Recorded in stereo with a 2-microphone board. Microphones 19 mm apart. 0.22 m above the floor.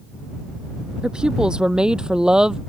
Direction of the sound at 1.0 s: 45° right (ahead or behind).